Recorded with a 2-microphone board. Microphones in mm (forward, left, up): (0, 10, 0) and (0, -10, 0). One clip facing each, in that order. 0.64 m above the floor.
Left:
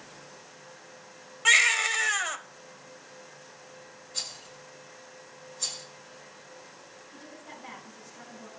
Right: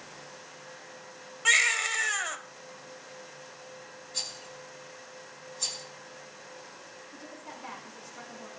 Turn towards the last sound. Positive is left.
turn(degrees=-45)  # may be behind; listen again after turning